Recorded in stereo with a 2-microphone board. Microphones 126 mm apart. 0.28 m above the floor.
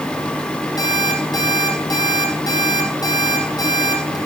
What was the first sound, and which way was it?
An alarm clock, 30° left (ahead or behind).